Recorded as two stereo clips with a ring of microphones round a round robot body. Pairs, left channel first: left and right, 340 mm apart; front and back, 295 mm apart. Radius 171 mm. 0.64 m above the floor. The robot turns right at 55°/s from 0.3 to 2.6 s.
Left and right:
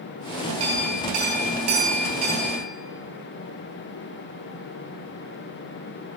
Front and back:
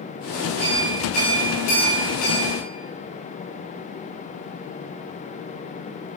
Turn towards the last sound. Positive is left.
turn(degrees=5)